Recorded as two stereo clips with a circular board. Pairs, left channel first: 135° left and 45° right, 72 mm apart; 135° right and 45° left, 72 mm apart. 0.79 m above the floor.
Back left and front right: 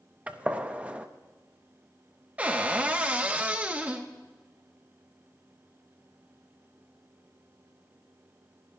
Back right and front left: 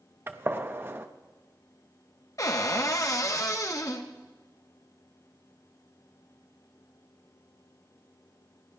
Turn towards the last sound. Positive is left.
turn(degrees=-110)